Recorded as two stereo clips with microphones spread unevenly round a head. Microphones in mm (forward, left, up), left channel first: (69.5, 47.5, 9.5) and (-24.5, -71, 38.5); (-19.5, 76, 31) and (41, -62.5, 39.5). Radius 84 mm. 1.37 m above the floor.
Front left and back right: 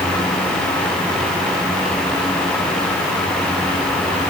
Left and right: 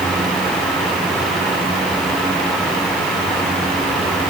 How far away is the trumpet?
I don't hear a trumpet.